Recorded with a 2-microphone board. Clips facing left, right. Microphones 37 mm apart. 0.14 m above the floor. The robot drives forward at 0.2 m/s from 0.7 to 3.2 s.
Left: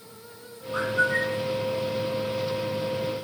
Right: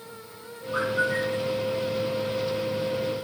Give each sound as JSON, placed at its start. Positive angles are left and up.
{"t": 0.7, "sound": "a bird", "side_deg": -30, "distance_m": 2.5}